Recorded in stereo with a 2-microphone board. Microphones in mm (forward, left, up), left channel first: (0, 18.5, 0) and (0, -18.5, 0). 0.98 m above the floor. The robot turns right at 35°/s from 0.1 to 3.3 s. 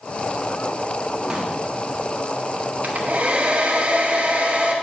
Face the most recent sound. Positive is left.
turn(degrees=-40)  # may be behind; listen again after turning